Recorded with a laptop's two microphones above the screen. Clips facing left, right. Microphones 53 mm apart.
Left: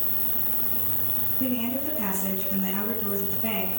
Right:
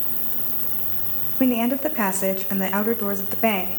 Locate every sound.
0.0 s an insect: 10° right (ahead or behind), 1.1 m
1.4 s a woman speaking: 70° right (ahead or behind), 0.8 m